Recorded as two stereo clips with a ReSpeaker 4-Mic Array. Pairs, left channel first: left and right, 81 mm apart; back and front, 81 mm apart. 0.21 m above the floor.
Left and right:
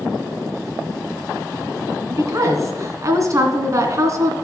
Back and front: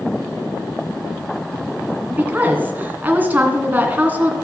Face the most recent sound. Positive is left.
turn(degrees=-60)